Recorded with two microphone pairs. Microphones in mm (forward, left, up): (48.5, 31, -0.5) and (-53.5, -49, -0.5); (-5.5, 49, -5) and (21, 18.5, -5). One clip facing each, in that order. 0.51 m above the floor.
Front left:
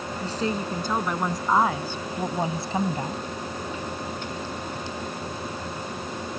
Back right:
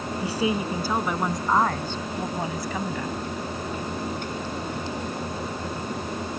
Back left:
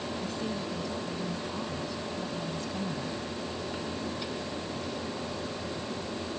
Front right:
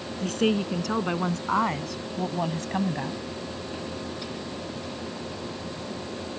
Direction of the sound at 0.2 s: 65° right.